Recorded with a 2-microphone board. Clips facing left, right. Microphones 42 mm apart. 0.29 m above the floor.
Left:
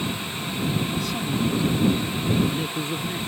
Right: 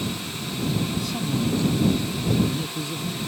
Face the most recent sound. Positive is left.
turn(degrees=40)  # may be behind; listen again after turning